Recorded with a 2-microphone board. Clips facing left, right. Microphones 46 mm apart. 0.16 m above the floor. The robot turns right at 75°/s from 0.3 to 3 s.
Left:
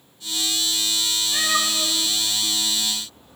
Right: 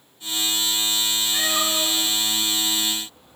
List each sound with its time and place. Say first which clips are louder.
1.3 s a cat meowing: left 2 dB; 50° left (ahead or behind), 1.4 m; by 3.4 s 10° right (ahead or behind), 1.4 m